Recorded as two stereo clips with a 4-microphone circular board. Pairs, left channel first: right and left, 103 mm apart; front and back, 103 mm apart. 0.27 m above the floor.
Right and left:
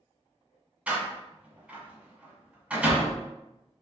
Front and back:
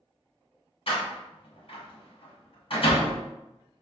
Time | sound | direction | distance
0.9 | a door slam | 15° left | 1.2 m